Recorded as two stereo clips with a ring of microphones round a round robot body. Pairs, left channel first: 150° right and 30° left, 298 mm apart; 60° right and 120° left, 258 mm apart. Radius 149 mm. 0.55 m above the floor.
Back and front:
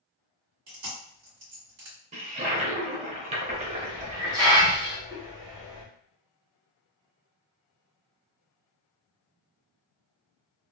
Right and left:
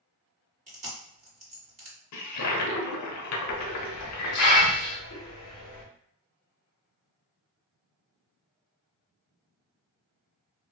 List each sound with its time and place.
0.7 s chewing: 60° left, 1.9 m
2.1 s a toilet flushing: 40° right, 0.7 m
3.5 s a hiss: 45° right, 1.2 m